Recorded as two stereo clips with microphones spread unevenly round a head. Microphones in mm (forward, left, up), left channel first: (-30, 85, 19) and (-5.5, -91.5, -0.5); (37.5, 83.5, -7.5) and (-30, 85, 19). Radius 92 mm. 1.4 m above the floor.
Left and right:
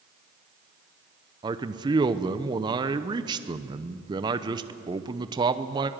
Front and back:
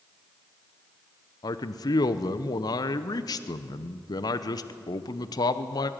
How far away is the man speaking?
About 0.9 m.